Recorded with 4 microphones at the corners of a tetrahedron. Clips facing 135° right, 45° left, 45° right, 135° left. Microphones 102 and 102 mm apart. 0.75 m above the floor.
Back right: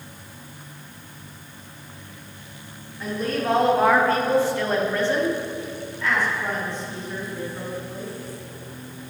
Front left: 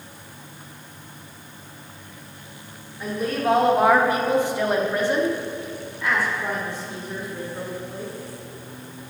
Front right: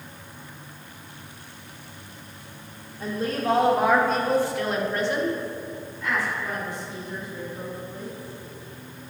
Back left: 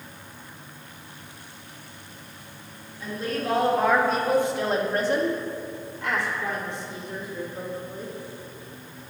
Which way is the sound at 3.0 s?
35° right.